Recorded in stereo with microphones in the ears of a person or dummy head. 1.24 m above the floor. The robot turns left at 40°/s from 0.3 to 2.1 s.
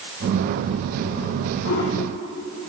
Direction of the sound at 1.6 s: 55° left (ahead or behind).